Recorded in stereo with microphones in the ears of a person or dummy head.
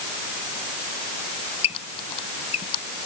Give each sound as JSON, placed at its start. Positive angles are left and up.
{"t": 1.6, "sound": "a squeak", "side_deg": 35}